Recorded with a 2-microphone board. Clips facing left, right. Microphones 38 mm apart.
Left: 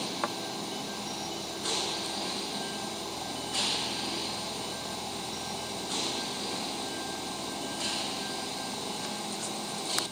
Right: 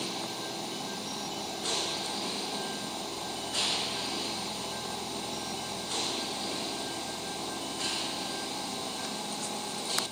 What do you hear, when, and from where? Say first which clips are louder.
0.2 s a thud: left 6 dB; 75° left (ahead or behind)